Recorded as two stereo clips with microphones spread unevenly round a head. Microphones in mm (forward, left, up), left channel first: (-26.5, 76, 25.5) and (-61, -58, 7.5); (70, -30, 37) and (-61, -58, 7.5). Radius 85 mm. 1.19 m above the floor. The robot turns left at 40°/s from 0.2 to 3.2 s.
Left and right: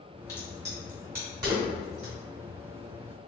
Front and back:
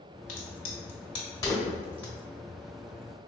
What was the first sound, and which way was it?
A crack, 10° left.